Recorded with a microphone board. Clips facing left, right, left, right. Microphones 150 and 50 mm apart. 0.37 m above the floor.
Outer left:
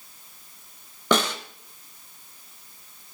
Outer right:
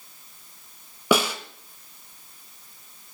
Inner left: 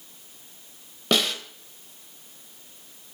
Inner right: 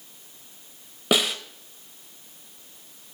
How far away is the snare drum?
About 0.8 m.